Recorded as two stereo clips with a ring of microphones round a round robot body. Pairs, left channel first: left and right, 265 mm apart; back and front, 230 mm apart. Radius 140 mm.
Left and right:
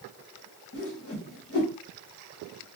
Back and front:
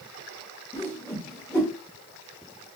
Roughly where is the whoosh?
Left.